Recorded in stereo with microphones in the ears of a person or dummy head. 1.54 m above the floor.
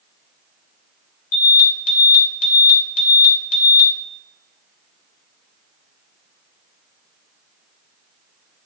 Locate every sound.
1.3 s an alarm: 50° left (ahead or behind), 4 m